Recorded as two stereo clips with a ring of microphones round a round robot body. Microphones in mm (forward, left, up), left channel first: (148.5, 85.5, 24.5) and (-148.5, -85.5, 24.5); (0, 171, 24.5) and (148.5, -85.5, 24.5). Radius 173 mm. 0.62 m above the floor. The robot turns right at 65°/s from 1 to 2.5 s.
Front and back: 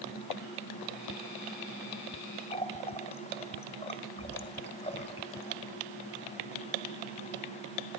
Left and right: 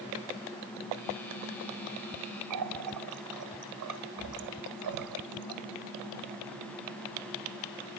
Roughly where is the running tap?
Ahead right.